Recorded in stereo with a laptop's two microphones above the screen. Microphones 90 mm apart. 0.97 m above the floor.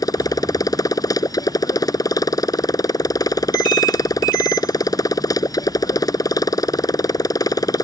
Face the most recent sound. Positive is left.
turn(degrees=40)  # may be behind; listen again after turning